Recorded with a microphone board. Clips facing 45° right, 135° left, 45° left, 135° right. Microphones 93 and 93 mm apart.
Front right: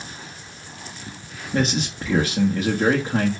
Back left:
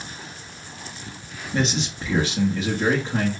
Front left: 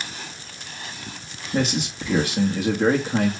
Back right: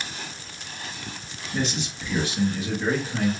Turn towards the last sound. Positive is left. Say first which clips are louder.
# front right 2 dB, front left 5 dB
turn(degrees=5)